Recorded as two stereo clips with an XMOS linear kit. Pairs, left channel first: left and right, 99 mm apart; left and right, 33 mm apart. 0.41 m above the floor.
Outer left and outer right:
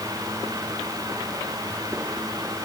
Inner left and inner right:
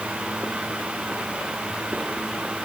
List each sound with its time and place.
Only background noise.